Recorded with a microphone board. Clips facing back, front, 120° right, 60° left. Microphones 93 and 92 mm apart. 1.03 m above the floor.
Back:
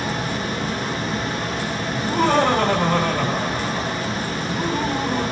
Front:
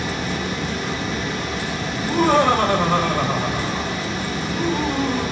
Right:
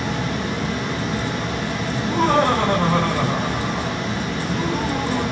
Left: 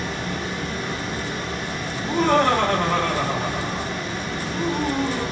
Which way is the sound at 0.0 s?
135° right.